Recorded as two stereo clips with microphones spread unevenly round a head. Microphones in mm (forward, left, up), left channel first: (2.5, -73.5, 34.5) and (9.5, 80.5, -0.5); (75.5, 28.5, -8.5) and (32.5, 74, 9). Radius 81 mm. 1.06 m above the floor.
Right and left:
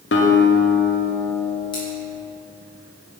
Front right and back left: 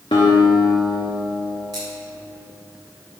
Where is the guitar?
95° right, 0.8 m.